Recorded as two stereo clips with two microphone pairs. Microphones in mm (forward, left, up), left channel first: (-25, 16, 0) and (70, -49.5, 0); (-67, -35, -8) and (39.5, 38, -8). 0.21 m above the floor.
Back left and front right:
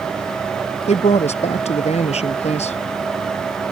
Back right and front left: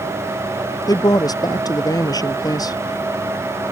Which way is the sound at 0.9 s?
155° left.